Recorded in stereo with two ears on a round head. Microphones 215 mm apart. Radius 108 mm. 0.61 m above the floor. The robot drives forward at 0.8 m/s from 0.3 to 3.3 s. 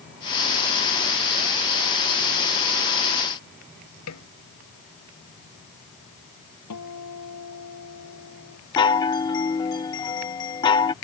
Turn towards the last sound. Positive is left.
turn(degrees=20)  # may be behind; listen again after turning